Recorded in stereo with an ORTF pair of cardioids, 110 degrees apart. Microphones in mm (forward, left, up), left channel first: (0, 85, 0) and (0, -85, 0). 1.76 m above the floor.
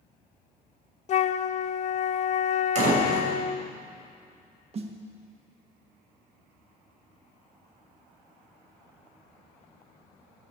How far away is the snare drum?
About 1.7 m.